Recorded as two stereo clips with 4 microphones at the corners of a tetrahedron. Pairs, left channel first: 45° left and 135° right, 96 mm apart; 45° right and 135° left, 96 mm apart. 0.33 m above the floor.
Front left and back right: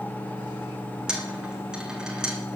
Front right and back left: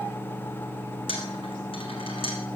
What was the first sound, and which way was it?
A dropped coin, 55° right.